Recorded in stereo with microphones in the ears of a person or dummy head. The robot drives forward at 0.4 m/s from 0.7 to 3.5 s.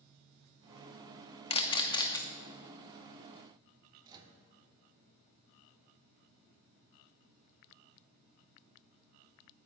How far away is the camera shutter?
About 0.6 m.